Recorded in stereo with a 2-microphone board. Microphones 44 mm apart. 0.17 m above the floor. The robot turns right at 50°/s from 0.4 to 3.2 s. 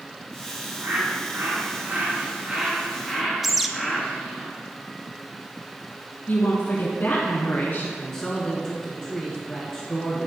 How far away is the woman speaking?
About 1.5 m.